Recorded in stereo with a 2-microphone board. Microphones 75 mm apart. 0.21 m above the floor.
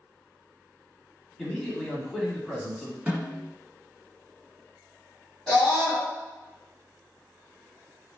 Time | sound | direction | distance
1.4 | a man speaking | 10° left (ahead or behind) | 1.2 m
3.1 | a snare drum | 15° right (ahead or behind) | 1.5 m
5.5 | a scream | 5° left (ahead or behind) | 1.6 m